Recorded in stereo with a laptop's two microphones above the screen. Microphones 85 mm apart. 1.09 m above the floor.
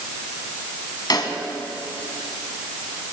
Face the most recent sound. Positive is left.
turn(degrees=55)  # may be behind; listen again after turning